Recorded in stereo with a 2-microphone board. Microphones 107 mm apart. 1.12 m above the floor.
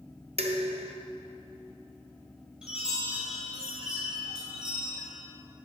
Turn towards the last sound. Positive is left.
turn(degrees=-10)  # may be behind; listen again after turning